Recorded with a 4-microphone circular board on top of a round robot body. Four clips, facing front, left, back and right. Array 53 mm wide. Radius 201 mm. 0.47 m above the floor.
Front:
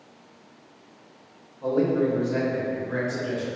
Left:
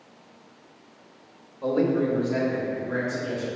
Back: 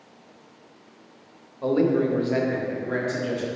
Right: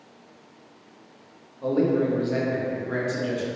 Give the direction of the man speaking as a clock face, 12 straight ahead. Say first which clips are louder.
Right 1 dB, back 1 dB; 6 o'clock.